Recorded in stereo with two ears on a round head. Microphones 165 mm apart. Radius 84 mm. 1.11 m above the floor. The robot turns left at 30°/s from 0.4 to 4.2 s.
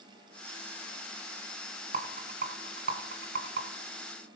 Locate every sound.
1.9 s a rattle: 40° right (ahead or behind), 1.9 m; by 3.6 s 60° right (ahead or behind), 1.9 m